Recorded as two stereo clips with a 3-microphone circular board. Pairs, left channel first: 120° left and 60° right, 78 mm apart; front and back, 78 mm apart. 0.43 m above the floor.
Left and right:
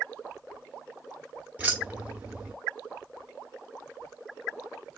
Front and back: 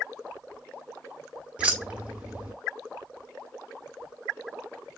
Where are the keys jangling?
120° right, 0.9 m.